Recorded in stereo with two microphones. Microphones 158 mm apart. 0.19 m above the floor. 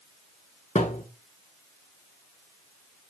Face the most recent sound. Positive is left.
turn(degrees=45)  # may be behind; listen again after turning